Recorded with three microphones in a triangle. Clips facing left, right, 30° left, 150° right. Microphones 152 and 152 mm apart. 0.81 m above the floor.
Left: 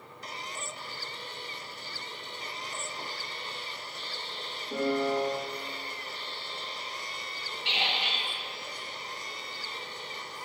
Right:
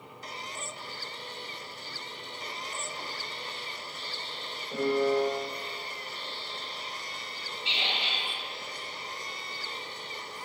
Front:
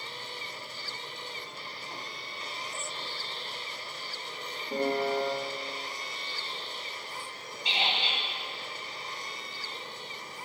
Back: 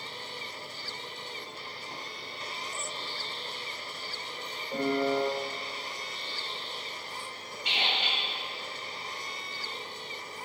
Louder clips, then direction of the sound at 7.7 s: Left 2 dB, front 1 dB; 85° left.